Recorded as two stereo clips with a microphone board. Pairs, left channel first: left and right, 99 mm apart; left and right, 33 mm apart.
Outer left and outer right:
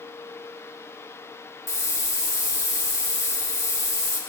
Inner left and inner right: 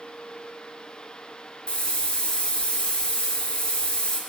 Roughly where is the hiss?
Left.